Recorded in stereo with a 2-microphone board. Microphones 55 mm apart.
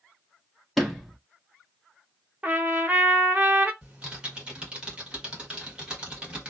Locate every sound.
0.8 s a sliding door: centre (ahead or behind), 0.8 m
2.4 s a trumpet: 25° right (ahead or behind), 1.0 m
3.8 s typing on a keyboard: 20° right (ahead or behind), 1.5 m